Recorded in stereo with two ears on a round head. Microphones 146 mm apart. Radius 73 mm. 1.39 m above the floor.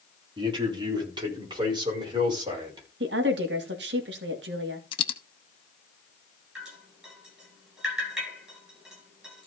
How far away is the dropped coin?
About 1.0 m.